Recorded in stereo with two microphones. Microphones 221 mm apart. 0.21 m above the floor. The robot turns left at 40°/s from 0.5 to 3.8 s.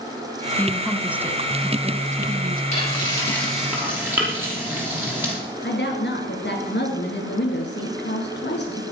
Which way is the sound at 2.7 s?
35° left (ahead or behind).